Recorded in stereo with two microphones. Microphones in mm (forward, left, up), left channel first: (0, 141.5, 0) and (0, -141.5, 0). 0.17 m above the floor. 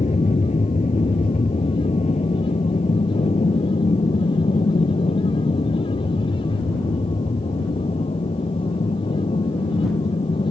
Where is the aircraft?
25° left (ahead or behind).